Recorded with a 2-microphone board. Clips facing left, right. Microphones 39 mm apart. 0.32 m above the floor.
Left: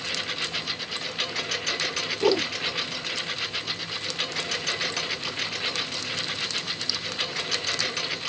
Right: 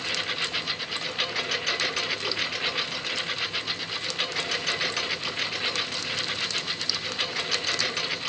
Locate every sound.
0.0 s a lawn mower: 10° right (ahead or behind); by 8.3 s 5° right (ahead or behind)
2.2 s a whoosh: 70° left (ahead or behind)